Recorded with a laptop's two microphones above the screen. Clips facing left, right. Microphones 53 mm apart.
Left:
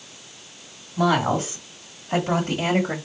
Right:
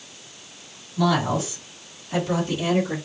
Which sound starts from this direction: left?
A woman speaking, at 1.0 s.